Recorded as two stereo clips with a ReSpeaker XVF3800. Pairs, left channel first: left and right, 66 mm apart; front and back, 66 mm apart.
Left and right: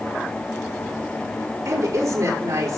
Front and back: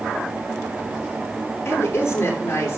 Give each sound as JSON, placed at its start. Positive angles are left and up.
{"t": 1.6, "sound": "a woman speaking", "azimuth_deg": -55, "distance_m": 6.0}